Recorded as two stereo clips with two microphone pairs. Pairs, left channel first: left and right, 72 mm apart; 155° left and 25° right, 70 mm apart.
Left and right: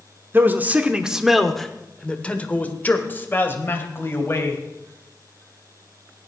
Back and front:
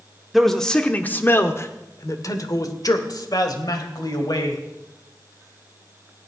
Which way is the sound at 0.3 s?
115° right.